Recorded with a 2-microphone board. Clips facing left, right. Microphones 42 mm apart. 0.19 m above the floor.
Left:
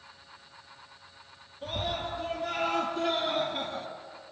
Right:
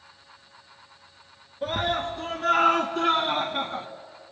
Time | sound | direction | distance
1.6 | a scream | 65° right (ahead or behind) | 2.5 m